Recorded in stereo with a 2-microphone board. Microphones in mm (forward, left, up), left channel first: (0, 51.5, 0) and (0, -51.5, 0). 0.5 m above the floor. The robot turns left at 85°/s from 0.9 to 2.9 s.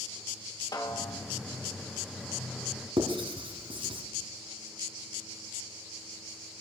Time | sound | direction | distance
0.7 | a snare drum | 45° left (ahead or behind) | 1.8 m
3.0 | writing | 60° right (ahead or behind) | 2.0 m